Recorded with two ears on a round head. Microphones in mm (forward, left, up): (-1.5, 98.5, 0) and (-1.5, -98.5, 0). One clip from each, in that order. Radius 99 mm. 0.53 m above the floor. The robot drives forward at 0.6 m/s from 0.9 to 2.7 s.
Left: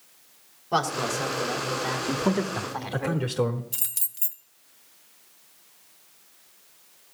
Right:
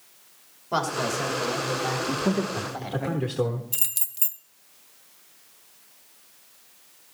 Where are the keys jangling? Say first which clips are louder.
Right 2 dB; 5° right (ahead or behind), 0.8 m.